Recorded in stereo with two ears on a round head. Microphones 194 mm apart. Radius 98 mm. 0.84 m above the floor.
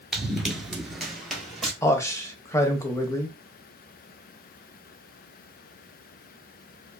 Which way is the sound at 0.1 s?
Centre (ahead or behind).